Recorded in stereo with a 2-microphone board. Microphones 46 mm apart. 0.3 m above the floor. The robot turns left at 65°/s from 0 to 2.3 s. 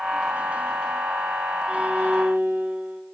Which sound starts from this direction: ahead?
A violin, at 1.7 s.